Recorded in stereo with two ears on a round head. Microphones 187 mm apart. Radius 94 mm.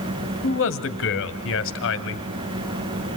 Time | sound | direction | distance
0.4 | a man speaking | 65° left (ahead or behind) | 1.9 m